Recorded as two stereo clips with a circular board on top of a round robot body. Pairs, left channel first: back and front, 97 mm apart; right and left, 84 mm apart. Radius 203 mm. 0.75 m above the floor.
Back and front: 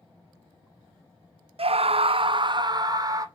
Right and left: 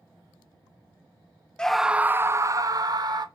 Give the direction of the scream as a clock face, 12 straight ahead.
12 o'clock.